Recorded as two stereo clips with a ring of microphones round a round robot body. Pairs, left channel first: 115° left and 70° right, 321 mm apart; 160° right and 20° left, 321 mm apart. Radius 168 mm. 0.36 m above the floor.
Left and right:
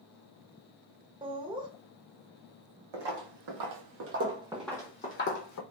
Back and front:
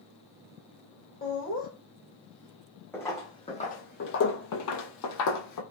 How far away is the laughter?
About 1.0 m.